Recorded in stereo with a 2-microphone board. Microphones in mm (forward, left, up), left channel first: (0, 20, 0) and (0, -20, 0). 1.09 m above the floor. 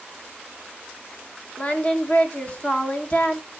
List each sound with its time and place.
1.6 s singing: 30° left (ahead or behind), 0.9 m